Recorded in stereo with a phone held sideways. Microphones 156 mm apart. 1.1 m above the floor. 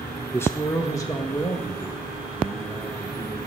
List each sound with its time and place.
0.3 s a man speaking: 15° left (ahead or behind), 1.1 m; by 3.4 s 25° left (ahead or behind), 4 m